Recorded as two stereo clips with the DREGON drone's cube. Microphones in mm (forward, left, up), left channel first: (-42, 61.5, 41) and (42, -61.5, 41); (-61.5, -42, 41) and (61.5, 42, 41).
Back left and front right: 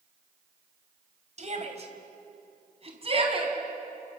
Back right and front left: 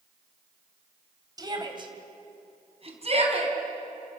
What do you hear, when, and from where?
1.4 s a shout: 25° right, 2.5 m; by 3.5 s 5° right, 4.5 m